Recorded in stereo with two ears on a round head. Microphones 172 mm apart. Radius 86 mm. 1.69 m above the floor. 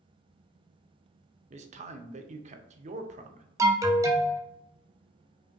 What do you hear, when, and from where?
1.5 s a man speaking: 35° right (ahead or behind), 0.6 m
3.6 s an alarm: 15° right (ahead or behind), 0.6 m